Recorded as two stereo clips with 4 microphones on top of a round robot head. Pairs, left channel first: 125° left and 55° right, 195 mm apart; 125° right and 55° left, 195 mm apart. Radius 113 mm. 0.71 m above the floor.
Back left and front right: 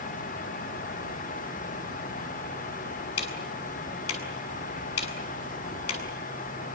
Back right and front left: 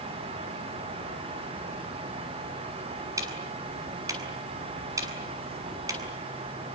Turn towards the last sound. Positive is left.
turn(degrees=130)